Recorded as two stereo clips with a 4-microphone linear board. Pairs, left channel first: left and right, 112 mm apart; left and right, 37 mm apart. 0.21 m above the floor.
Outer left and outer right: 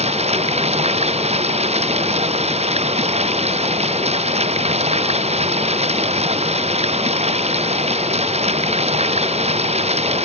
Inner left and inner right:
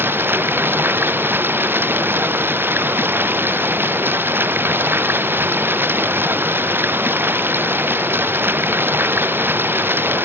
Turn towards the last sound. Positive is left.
turn(degrees=-70)  # may be behind; listen again after turning